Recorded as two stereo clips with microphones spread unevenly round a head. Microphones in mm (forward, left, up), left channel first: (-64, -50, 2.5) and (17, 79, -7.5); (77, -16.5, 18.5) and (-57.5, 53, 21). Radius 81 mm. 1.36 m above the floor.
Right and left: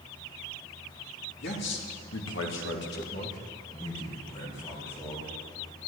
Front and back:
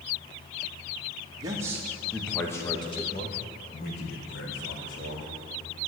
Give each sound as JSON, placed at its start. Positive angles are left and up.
{"t": 1.4, "sound": "a man speaking", "azimuth_deg": -140, "distance_m": 2.5}